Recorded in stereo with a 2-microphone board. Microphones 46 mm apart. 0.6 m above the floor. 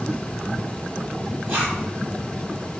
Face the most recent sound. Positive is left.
turn(degrees=-40)  # may be behind; listen again after turning